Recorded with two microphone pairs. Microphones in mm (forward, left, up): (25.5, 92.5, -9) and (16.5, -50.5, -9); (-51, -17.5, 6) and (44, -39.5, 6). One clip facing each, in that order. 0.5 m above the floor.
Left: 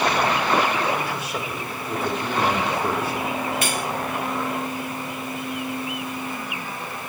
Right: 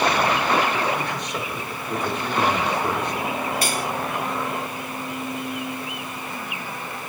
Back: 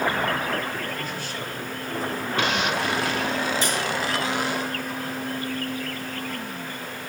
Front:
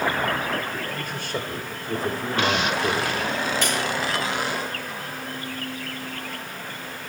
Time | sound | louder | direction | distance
0.9 | a man speaking | even, front 2 dB | 5° left | 2.5 m
3.6 | cutlery clinking | even, front 1 dB | 40° right | 1.7 m